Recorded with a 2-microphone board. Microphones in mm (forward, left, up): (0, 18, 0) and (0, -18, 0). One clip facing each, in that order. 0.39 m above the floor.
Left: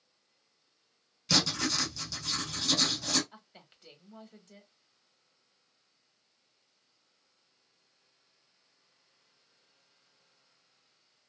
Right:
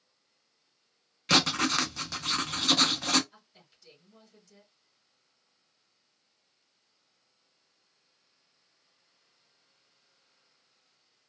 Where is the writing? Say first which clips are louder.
Right 5 dB; 50° right (ahead or behind), 0.8 m.